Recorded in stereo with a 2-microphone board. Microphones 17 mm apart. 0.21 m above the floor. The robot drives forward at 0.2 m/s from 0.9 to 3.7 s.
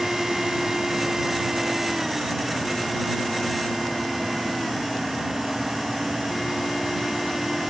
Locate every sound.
Only background noise.